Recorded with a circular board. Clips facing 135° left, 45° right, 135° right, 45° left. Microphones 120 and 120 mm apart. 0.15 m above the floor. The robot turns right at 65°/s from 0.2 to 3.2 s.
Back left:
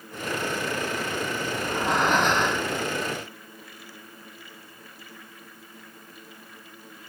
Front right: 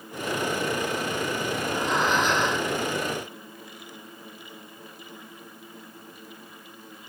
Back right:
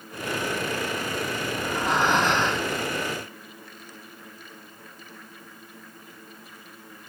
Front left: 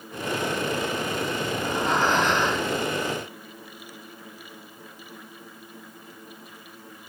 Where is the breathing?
120° left, 5.5 m; by 2.7 s 160° right, 5.5 m.